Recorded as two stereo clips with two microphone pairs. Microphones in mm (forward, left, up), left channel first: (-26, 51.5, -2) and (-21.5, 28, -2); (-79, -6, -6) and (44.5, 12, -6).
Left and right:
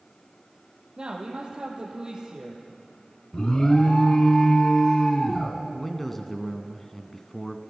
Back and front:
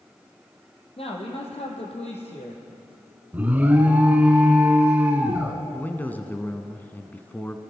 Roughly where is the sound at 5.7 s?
Behind left.